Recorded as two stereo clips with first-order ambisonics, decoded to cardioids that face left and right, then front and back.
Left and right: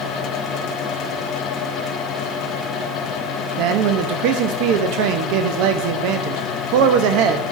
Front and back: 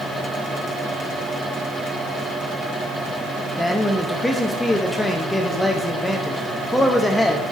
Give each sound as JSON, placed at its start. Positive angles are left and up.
{"t": 3.6, "sound": "a man speaking", "azimuth_deg": -85, "distance_m": 0.6}